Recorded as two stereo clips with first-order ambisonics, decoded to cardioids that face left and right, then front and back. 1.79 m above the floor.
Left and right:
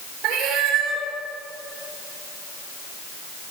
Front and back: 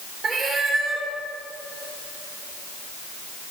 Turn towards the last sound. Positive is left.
turn(degrees=-120)